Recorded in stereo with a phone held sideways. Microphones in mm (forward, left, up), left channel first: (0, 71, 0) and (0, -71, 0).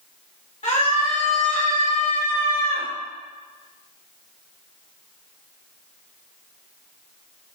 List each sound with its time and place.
0.6 s a scream: 55° left (ahead or behind), 2 m; by 2.9 s 75° left (ahead or behind), 1.5 m